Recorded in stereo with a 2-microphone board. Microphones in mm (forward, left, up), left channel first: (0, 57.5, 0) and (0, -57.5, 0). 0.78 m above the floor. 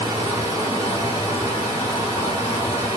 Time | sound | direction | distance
0.0 | running water | 30° right (ahead or behind) | 1.8 m